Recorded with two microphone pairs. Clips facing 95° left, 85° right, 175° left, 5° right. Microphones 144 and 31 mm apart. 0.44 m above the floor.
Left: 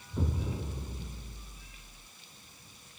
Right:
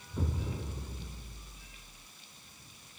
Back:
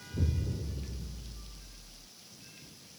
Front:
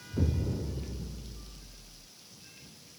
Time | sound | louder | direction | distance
0.1 | an explosion | left 2 dB, front 4 dB | 15° left | ?